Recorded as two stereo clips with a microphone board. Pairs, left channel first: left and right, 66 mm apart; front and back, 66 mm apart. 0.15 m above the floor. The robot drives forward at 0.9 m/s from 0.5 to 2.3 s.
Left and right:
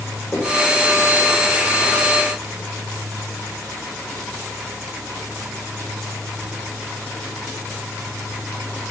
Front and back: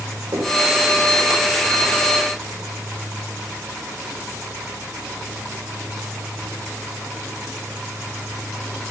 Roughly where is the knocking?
Behind left.